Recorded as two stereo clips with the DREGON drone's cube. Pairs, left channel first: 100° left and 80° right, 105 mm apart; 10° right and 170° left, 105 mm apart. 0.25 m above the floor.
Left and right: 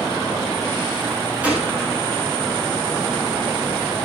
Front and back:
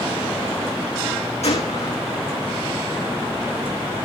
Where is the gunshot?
Straight ahead, 5.5 m.